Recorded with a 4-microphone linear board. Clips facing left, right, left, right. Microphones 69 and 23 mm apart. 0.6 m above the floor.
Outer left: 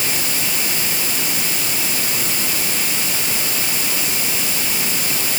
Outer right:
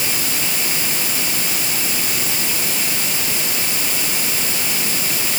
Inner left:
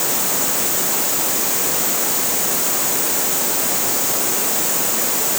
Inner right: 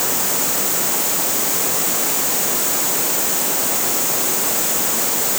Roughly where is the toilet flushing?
I don't hear a toilet flushing.